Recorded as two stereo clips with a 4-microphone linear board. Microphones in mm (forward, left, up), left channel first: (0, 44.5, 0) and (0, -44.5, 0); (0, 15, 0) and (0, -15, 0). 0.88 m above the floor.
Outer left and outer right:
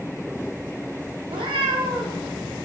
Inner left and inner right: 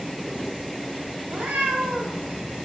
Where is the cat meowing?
80° right, 0.8 m.